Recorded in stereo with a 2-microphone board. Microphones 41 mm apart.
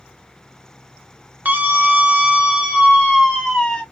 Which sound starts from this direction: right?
A scream, at 1.4 s.